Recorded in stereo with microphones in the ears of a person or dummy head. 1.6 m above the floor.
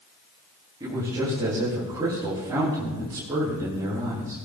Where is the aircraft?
No aircraft in this recording.